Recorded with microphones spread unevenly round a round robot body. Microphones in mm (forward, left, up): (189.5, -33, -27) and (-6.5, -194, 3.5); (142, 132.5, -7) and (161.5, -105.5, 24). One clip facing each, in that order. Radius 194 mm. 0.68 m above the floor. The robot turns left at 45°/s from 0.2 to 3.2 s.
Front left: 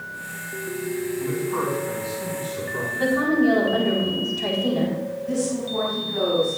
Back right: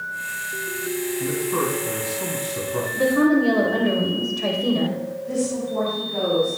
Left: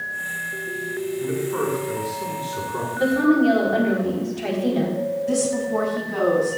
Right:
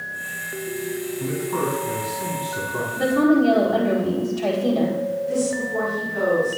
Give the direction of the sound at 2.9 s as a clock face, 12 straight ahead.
5 o'clock.